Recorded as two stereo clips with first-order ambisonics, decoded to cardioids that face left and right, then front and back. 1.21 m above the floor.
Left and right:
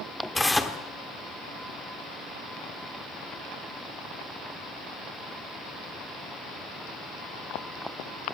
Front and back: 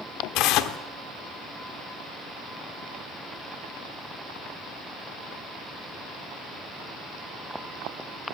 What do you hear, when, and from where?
0.3 s tearing paper: 5° left, 1.2 m